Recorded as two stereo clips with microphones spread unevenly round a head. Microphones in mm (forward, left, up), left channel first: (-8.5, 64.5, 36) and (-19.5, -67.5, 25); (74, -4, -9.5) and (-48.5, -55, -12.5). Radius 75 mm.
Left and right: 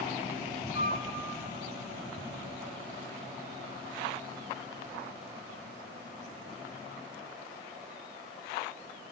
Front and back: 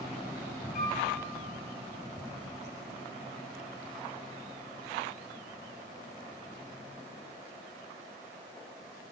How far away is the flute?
About 1.9 m.